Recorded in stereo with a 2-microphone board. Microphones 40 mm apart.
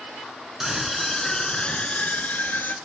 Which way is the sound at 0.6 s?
10° right (ahead or behind).